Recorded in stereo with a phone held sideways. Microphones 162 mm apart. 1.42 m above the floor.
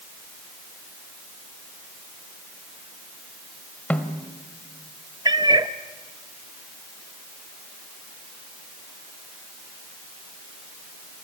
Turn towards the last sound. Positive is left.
turn(degrees=-25)  # may be behind; listen again after turning